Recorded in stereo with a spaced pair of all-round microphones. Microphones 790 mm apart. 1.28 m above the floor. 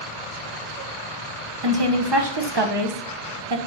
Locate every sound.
1.6 s a woman speaking: 30° right (ahead or behind), 1.0 m